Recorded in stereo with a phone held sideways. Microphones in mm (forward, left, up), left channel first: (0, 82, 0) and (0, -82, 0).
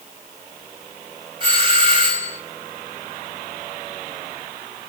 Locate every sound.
1.4 s a doorbell: 30° right (ahead or behind), 1.8 m